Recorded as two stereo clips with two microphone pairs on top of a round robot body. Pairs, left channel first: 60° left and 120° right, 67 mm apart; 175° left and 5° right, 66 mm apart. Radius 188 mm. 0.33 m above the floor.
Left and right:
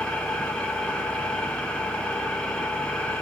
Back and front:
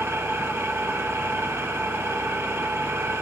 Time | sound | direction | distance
0.0 | an engine running | 15° right | 1.2 m